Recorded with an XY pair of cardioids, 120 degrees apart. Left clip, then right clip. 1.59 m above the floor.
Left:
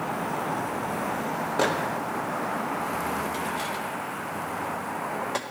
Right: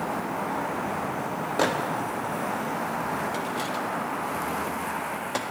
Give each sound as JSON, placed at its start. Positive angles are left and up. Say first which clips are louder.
{"t": 1.6, "sound": "a microwave", "louder": "right 1 dB", "azimuth_deg": -10, "distance_m": 0.8}